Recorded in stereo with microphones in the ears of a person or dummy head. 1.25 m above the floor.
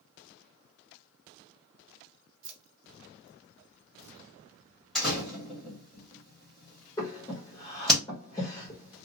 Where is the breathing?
10° left (ahead or behind), 1.1 m.